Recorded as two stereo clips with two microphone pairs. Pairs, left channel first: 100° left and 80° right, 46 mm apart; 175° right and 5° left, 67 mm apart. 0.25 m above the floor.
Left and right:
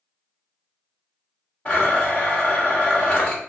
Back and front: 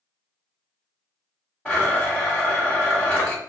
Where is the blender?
125° left, 1.7 m.